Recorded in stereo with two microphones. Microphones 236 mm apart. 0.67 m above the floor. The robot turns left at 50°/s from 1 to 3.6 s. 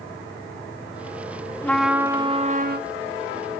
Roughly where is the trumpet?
Ahead.